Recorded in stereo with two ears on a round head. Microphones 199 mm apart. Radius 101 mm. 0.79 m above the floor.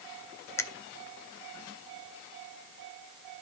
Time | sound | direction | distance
0.6 | a finger snap | 10° left (ahead or behind) | 0.6 m